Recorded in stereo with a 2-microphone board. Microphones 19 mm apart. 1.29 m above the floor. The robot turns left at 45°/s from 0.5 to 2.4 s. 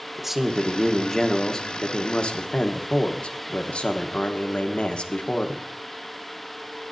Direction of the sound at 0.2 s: 165° right.